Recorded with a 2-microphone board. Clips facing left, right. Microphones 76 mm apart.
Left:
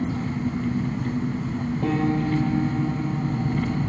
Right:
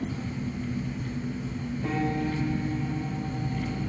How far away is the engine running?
About 1.0 m.